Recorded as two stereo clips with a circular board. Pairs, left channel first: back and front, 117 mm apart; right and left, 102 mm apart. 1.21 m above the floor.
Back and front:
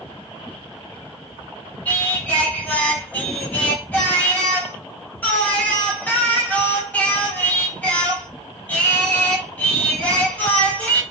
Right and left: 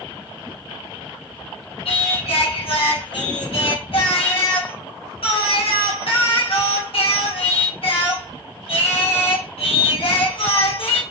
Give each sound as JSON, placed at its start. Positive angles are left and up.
{"t": 1.9, "sound": "singing", "azimuth_deg": -105, "distance_m": 1.4}